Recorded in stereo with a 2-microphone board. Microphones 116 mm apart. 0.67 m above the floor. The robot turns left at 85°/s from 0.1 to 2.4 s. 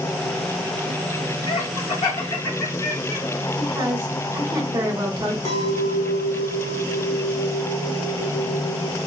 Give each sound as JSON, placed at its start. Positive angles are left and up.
{"t": 1.5, "sound": "laughter", "side_deg": 55, "distance_m": 2.0}
{"t": 3.6, "sound": "a woman speaking", "side_deg": -30, "distance_m": 1.8}
{"t": 5.5, "sound": "a clink", "side_deg": 65, "distance_m": 1.7}